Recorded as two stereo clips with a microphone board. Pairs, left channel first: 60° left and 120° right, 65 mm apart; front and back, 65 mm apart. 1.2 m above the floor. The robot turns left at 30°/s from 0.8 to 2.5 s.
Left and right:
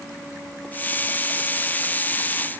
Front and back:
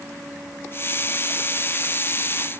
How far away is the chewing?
I don't hear chewing.